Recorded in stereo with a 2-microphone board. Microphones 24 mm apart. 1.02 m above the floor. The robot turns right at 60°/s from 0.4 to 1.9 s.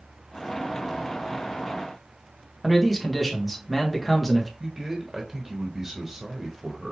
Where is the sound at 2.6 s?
Centre (ahead or behind), 1.4 m.